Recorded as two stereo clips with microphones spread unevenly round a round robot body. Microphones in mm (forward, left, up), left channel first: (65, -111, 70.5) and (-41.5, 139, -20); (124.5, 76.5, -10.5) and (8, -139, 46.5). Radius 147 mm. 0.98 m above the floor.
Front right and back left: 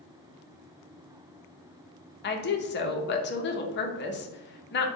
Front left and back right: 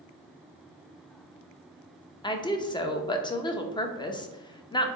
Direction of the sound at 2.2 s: 10° right.